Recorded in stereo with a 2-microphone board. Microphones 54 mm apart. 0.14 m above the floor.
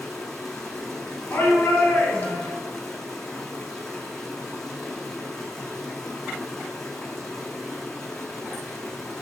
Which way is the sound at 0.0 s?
5° left (ahead or behind).